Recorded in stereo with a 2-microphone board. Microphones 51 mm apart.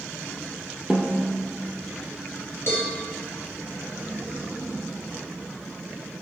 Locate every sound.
0.9 s a snare drum: 15° right (ahead or behind), 1.4 m
2.7 s a cowbell: 55° left (ahead or behind), 3 m